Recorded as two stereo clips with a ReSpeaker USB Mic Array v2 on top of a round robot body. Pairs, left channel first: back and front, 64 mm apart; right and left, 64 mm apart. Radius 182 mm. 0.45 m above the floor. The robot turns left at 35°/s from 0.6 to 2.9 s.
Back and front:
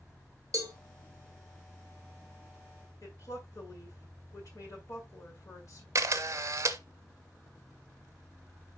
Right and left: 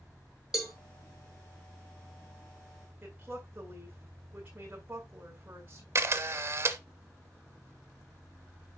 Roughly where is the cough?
I don't hear a cough.